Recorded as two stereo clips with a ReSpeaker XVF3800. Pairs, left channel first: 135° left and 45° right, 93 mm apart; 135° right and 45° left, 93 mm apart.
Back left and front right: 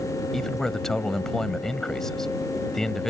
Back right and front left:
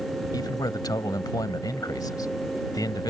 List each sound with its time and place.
0.3 s a man speaking: 140° right